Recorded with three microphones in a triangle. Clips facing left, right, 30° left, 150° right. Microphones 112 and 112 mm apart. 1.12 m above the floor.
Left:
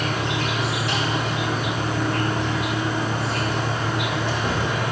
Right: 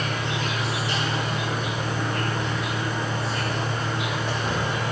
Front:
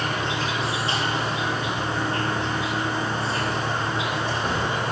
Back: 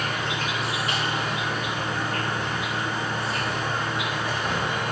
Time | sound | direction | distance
0.0 | an insect | 90° left | 4 m